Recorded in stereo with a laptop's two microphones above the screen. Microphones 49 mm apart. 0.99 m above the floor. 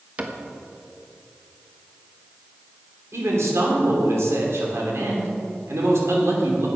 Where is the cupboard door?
30° right (ahead or behind), 1.2 m.